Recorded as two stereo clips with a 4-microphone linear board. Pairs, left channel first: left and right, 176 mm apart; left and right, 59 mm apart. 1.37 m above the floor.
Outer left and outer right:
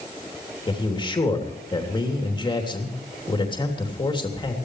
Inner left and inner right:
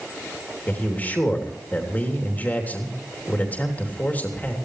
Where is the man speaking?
25° left (ahead or behind), 3 m.